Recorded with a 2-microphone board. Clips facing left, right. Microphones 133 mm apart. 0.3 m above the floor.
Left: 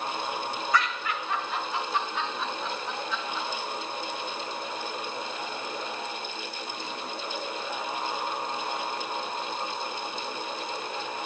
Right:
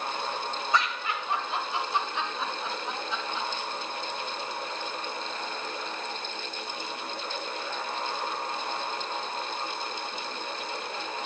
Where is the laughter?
25° right (ahead or behind), 1.1 m; by 3.5 s 20° right (ahead or behind), 1.7 m.